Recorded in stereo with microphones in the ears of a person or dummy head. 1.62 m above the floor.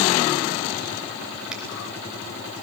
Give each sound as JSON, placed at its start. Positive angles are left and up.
{"t": 1.5, "sound": "a finger snap", "side_deg": -5, "distance_m": 3.5}